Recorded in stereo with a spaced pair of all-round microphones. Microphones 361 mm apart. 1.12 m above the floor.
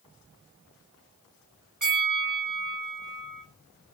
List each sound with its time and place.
1.8 s a bell: 55° right (ahead or behind), 1.1 m